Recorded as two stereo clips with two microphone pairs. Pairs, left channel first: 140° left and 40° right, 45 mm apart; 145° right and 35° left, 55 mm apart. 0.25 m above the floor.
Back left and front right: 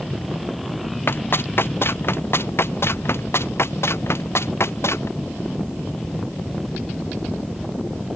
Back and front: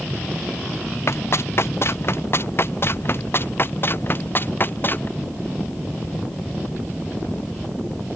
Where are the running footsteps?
175° left; by 5.1 s 165° left.